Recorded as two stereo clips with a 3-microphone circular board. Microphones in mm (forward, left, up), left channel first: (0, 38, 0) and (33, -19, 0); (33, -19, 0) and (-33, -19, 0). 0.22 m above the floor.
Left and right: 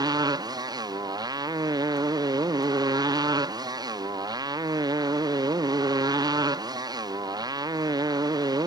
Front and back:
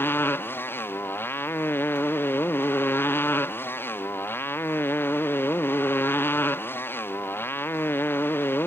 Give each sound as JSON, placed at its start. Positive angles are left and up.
{"t": 0.0, "sound": "a motorcycle", "azimuth_deg": -55}